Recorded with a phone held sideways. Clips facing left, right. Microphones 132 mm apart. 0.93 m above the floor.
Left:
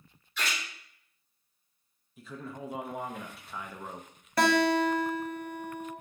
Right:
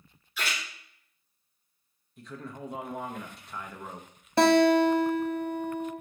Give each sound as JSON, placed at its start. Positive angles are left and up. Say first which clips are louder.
{"t": 0.4, "sound": "a splash", "louder": "right 1 dB", "side_deg": -5, "distance_m": 3.0}
{"t": 2.2, "sound": "a man speaking", "louder": "even", "side_deg": 5, "distance_m": 0.5}
{"t": 4.4, "sound": "a guitar", "louder": "right 5 dB", "side_deg": -25, "distance_m": 0.7}